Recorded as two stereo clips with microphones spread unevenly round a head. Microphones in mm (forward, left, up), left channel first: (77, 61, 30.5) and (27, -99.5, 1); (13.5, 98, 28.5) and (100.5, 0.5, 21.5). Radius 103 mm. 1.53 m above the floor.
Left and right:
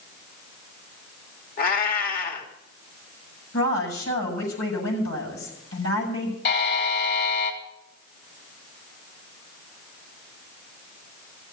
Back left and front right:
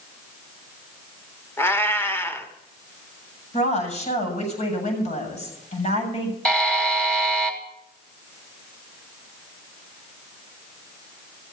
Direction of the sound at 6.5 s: 50° left.